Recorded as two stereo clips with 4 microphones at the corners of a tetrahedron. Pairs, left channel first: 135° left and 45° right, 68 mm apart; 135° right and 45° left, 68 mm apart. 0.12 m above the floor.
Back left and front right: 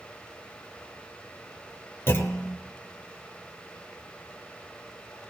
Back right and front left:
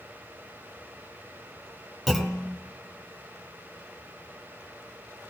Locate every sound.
2.1 s a clunk: 130° left, 1.0 m